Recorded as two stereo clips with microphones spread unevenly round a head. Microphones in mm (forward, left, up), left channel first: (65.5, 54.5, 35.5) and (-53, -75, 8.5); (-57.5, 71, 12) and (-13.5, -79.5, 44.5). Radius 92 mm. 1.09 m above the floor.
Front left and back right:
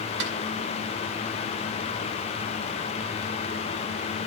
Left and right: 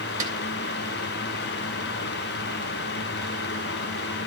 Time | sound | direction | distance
0.2 | a snare drum | 110° right | 4.5 m